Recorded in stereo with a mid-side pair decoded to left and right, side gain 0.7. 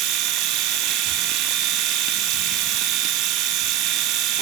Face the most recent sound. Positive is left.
turn(degrees=-60)